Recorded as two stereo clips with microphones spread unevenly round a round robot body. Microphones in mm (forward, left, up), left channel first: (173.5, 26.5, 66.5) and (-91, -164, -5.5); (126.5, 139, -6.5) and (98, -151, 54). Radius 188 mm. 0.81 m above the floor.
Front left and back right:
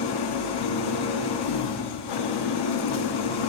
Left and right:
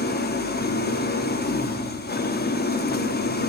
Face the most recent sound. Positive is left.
turn(degrees=25)